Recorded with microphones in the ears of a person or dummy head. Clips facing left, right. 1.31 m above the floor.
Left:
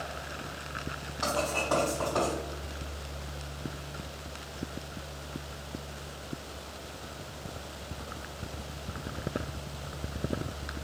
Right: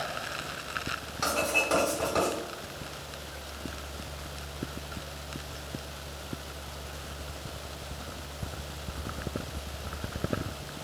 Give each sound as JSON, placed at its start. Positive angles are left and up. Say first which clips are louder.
{"t": 1.2, "sound": "writing", "louder": "right 1 dB", "side_deg": -40, "distance_m": 1.3}